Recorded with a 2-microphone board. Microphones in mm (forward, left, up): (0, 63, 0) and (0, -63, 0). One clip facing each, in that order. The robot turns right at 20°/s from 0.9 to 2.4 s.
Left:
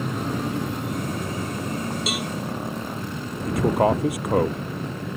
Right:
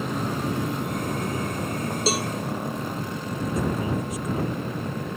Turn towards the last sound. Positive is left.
turn(degrees=65)  # may be behind; listen again after turning